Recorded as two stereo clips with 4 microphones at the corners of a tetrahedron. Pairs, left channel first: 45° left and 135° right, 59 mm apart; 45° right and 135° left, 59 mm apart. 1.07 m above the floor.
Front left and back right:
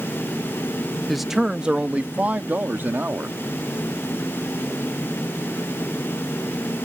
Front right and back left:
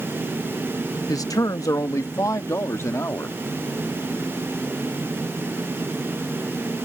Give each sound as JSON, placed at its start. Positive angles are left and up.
{"t": 1.1, "sound": "a man speaking", "azimuth_deg": -45}